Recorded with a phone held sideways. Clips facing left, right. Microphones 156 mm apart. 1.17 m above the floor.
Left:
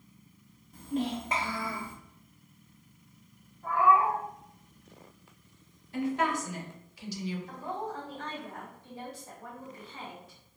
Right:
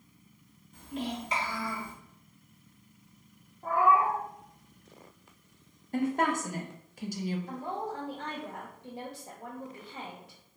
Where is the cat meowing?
40° right (ahead or behind), 0.7 m.